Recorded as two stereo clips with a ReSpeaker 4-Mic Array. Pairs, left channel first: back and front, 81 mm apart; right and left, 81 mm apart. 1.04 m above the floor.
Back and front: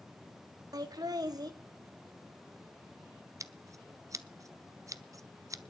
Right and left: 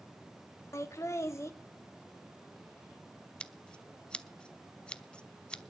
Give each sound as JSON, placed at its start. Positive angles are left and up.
{"t": 0.7, "sound": "laughter", "azimuth_deg": -40, "distance_m": 2.0}
{"t": 3.4, "sound": "scissors", "azimuth_deg": -15, "distance_m": 0.7}